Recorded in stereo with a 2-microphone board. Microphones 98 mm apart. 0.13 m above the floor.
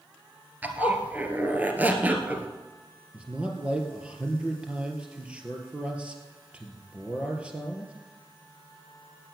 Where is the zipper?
20° right (ahead or behind), 1.7 m.